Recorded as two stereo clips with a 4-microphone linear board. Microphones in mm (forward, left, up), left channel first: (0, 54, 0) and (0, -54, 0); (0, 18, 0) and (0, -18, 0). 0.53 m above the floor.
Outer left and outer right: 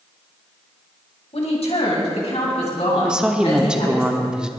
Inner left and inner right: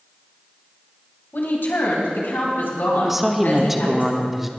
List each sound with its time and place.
1.3 s a woman speaking: 75° left (ahead or behind), 3 m; by 4.0 s 80° left, 5.5 m
3.0 s a woman speaking: 5° right (ahead or behind), 1.0 m